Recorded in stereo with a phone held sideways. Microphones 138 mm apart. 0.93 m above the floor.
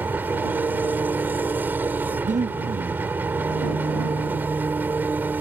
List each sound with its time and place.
0.0 s an engine running: 15° right (ahead or behind)
2.2 s breathing: 65° right (ahead or behind)